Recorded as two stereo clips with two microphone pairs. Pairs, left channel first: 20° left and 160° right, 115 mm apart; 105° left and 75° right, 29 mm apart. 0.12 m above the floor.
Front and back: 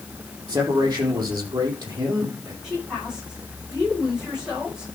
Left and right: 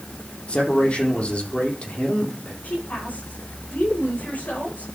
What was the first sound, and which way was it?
A man speaking, 145° left.